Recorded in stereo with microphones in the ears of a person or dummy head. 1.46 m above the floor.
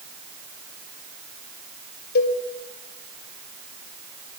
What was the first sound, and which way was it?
A cowbell, 60° left (ahead or behind).